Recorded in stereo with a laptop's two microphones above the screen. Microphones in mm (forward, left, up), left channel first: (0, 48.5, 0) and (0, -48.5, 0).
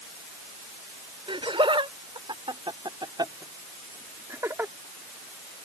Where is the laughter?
75° right (ahead or behind); by 4.7 s 25° right (ahead or behind).